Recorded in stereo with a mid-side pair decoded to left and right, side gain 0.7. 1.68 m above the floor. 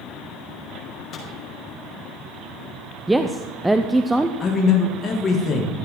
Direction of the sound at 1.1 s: 35° left.